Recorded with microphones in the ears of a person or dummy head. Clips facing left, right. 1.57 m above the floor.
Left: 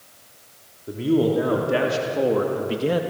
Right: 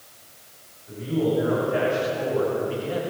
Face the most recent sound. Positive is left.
turn(degrees=70)  # may be behind; listen again after turning